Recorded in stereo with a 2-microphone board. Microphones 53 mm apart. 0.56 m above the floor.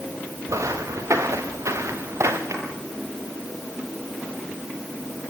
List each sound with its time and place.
0.5 s footsteps: 80° right, 4 m; by 2.4 s 65° right (ahead or behind), 4 m
2.5 s a drawer: 70° right (ahead or behind), 9 m